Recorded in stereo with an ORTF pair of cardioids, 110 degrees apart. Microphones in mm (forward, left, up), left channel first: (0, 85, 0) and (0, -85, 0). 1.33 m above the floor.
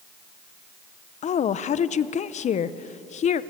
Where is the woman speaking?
45° left, 0.8 m.